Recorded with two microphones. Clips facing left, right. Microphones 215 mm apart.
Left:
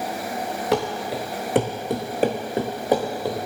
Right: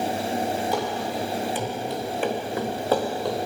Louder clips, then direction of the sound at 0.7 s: Left 3 dB; 75° left (ahead or behind).